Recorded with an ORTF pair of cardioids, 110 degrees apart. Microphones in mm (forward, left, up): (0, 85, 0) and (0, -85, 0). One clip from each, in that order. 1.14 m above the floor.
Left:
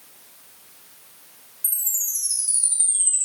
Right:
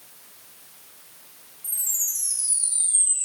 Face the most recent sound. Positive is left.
turn(degrees=65)